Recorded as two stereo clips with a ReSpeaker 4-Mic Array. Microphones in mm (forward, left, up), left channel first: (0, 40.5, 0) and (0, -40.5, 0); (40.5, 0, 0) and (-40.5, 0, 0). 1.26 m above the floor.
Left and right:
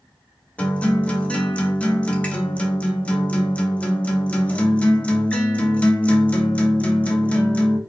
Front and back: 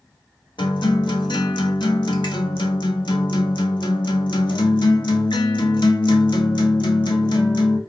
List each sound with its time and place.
0.6 s a guitar: 15° left, 1.4 m